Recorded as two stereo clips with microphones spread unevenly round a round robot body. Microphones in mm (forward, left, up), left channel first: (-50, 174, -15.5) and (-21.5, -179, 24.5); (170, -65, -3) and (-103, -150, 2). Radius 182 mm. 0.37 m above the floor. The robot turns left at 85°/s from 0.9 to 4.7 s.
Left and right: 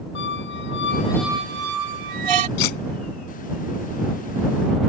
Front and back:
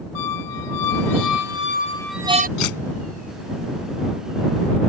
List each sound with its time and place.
0.1 s a squeak: 30° left; by 2.5 s 105° right
2.6 s cutlery clinking: 65° left; by 2.8 s 45° left